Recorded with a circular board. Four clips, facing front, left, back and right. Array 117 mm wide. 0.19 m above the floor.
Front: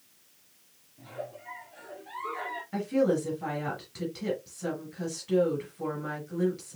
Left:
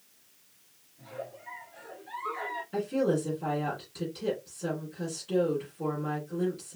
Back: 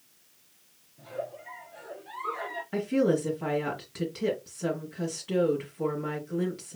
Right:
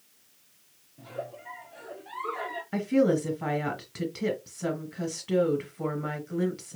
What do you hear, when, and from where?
1.0 s a giggle: 85° right, 2 m
2.7 s a woman speaking: 100° right, 3.5 m